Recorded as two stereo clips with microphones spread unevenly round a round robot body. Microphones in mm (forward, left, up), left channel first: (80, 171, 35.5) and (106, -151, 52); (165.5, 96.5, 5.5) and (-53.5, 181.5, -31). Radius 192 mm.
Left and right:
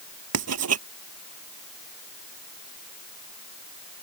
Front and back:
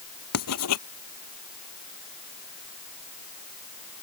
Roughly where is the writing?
Ahead right.